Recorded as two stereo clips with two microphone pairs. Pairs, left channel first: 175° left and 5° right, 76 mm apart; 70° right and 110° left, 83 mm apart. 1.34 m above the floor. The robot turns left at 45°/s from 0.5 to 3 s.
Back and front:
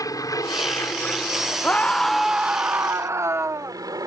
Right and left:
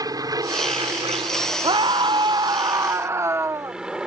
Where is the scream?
110° left; by 3.8 s 50° left.